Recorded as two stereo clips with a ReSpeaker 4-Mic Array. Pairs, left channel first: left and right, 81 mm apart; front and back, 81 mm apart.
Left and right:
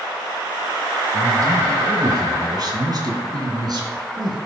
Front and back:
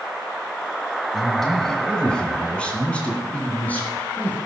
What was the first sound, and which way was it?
A man speaking, 90° right.